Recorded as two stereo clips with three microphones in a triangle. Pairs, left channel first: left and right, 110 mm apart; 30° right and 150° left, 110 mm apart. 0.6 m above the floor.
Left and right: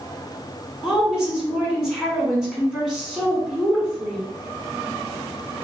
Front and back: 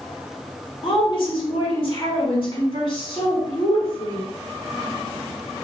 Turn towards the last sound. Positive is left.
turn(degrees=-5)